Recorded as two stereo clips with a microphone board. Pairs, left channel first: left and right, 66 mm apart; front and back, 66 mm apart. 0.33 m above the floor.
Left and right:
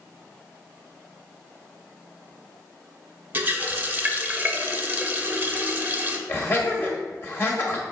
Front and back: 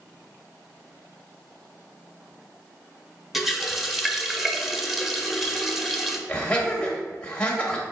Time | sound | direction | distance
3.3 | a running tap | 100° right | 0.6 m
6.3 | laughter | 65° left | 1.2 m